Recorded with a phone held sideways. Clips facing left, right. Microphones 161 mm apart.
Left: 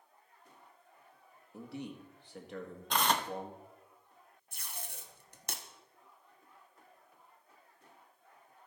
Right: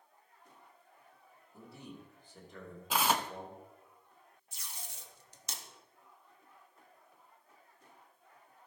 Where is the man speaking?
75° left (ahead or behind), 1.6 m.